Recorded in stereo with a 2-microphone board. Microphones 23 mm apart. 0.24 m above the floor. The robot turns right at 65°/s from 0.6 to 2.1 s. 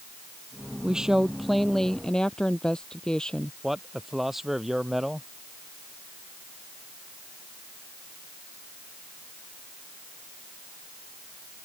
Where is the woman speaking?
40° right; by 3.5 s 45° left.